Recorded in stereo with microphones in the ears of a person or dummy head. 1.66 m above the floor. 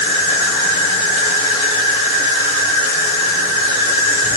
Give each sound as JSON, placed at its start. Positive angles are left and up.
{"t": 0.0, "sound": "an insect", "side_deg": 35, "distance_m": 1.5}